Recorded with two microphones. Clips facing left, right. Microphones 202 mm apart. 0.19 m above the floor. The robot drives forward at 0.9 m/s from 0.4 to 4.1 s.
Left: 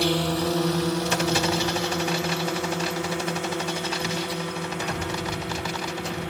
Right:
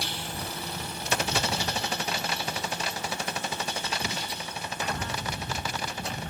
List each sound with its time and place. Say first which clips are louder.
0.0 s a drone: left 14 dB; 80° left; by 6.3 s 85° left